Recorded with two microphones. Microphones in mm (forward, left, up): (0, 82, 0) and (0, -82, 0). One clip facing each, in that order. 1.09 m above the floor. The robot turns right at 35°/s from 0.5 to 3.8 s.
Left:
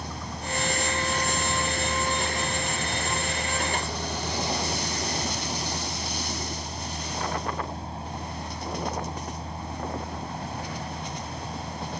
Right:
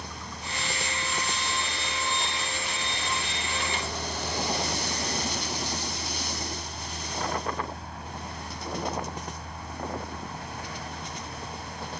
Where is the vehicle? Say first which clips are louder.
Left 5 dB; 35° left; by 12.0 s 150° left.